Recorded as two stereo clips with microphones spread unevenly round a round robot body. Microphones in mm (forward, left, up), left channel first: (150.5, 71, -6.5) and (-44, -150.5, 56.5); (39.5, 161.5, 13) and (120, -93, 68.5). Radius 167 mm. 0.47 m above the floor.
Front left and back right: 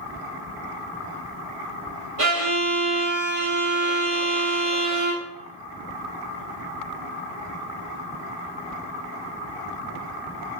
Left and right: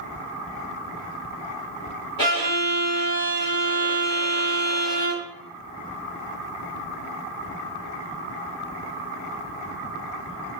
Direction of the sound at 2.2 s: Straight behind.